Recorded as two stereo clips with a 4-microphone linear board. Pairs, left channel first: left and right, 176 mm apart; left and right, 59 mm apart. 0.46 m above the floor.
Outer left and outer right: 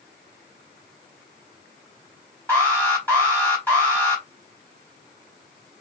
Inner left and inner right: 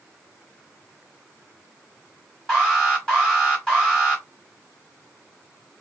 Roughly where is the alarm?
Centre.